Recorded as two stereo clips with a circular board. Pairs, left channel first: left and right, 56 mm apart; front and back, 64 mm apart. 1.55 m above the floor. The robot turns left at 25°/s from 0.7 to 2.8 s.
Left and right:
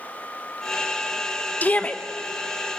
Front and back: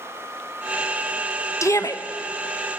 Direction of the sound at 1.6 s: 35° left.